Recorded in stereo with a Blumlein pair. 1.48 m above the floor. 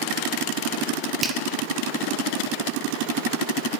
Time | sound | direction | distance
1.2 | a finger snap | 15° right | 0.7 m